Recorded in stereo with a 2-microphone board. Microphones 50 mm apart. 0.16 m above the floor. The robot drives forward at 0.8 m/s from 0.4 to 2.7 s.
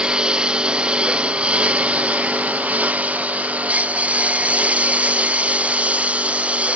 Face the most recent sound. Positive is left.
turn(degrees=-25)  # may be behind; listen again after turning